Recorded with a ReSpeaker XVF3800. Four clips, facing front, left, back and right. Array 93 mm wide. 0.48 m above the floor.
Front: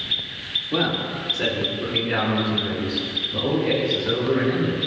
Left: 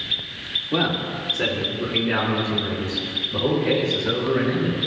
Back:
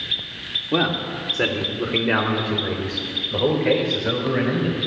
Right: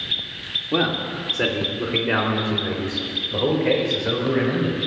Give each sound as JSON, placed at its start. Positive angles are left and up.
{"t": 0.7, "sound": "a man speaking", "azimuth_deg": -155, "distance_m": 1.2}